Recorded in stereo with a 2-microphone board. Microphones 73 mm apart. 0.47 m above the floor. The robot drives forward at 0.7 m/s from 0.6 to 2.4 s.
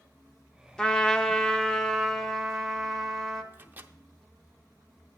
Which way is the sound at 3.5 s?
25° right (ahead or behind).